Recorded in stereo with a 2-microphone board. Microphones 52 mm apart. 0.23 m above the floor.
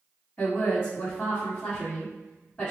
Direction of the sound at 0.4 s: 20° left (ahead or behind).